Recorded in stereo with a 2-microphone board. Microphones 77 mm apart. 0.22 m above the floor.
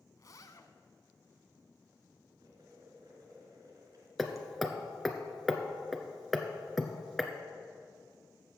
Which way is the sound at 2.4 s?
55° right (ahead or behind).